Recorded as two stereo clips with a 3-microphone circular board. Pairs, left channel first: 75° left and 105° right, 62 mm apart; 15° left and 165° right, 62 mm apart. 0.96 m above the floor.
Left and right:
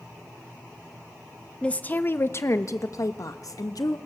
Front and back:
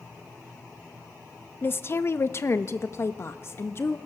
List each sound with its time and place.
1.6 s a woman speaking: 10° left, 0.8 m; by 4.0 s 60° left, 1.7 m